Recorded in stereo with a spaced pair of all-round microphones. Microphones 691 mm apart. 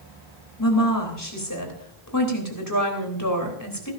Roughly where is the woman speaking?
Left.